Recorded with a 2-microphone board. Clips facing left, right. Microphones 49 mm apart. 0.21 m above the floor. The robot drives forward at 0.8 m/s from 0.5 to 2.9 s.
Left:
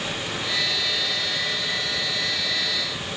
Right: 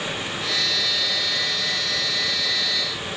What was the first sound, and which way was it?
Only background noise.